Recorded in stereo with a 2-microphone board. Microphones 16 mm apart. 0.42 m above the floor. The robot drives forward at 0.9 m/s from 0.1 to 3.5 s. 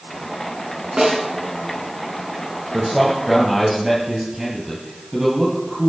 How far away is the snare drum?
About 4.5 m.